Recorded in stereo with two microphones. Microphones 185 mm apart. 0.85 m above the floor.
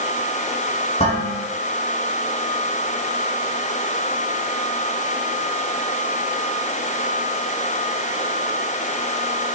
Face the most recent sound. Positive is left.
turn(degrees=35)  # may be behind; listen again after turning